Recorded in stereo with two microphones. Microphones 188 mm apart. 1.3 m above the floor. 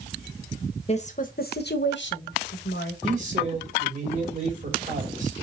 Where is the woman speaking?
35° left (ahead or behind), 1.1 m; by 2.9 s 75° left (ahead or behind), 1.4 m.